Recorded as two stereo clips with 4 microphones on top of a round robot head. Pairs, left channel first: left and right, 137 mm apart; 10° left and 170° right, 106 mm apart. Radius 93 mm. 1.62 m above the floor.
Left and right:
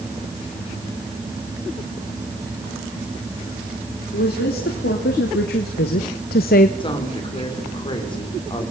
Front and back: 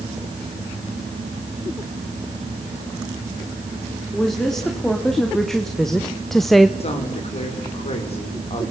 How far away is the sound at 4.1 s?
About 4 m.